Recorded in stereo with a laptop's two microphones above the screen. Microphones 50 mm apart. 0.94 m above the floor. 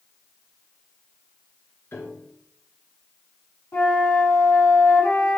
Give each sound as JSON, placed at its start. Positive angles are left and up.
{"t": 1.9, "sound": "a piano", "side_deg": 55, "distance_m": 2.0}
{"t": 3.7, "sound": "a flute", "side_deg": 50, "distance_m": 3.5}